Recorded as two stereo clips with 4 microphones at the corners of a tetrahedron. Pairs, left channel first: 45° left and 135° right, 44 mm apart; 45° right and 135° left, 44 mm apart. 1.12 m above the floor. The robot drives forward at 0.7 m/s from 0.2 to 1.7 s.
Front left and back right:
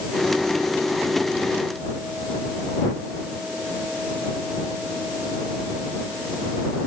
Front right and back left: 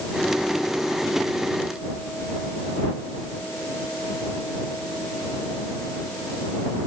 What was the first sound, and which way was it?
Only background noise.